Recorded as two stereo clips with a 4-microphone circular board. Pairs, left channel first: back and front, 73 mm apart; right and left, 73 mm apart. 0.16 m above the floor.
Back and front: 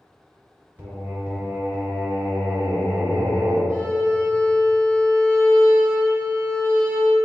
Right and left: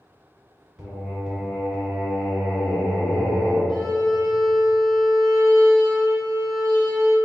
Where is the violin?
5° left, 1.6 m.